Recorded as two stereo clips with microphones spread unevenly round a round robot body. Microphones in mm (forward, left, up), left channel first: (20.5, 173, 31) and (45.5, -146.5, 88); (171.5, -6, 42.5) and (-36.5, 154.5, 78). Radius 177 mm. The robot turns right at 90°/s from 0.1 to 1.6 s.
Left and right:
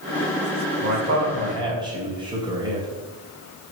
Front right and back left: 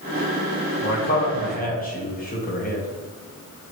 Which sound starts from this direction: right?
A man speaking, at 0.8 s.